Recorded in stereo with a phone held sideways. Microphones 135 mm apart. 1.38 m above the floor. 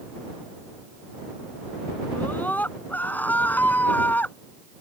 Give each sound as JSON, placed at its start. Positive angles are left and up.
{"t": 2.1, "sound": "a scream", "side_deg": 15}